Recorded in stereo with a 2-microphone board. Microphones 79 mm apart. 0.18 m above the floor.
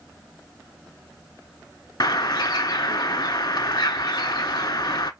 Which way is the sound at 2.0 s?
60° left (ahead or behind).